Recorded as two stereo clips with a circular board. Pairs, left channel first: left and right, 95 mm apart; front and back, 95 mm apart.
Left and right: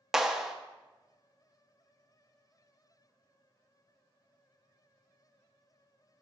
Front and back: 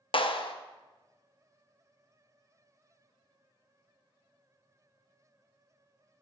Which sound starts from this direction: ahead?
A clap, at 0.1 s.